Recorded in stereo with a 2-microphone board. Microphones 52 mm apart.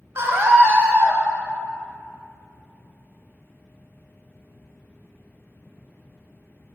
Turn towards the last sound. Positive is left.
turn(degrees=-45)  # may be behind; listen again after turning